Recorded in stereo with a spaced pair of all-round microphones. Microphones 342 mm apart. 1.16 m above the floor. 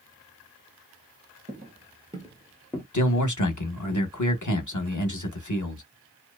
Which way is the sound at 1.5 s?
30° right (ahead or behind).